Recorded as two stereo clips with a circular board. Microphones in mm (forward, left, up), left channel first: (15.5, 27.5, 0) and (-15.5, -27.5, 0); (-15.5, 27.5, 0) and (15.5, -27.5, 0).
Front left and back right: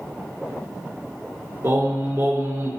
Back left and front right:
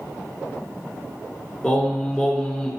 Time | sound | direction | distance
1.6 | singing | 155° right | 3 m